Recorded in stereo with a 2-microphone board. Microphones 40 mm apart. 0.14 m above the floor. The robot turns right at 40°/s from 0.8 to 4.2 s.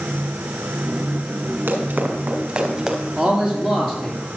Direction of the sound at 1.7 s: 70° right (ahead or behind).